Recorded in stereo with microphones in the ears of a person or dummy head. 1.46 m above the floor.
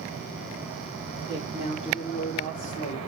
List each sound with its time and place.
1.3 s a woman speaking: 25° left (ahead or behind), 3.5 m; by 3.0 s 40° left (ahead or behind), 3.5 m